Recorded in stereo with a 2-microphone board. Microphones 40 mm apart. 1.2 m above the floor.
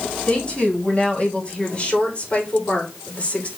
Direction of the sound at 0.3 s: 25° left (ahead or behind).